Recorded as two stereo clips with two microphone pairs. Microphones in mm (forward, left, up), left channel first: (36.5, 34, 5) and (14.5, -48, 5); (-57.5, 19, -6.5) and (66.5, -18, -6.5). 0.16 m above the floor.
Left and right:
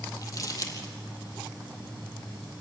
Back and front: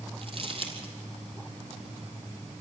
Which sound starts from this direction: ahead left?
Crumpling, at 0.2 s.